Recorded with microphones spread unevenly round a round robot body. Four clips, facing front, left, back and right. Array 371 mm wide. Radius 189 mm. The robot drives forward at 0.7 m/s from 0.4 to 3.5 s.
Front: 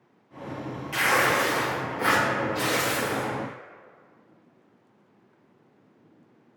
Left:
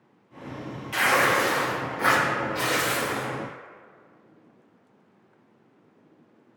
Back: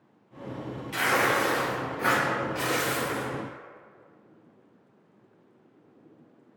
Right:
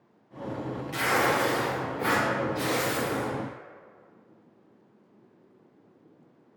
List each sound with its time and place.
0.9 s tearing paper: 55° left, 1.9 m; by 3.3 s 110° left, 1.7 m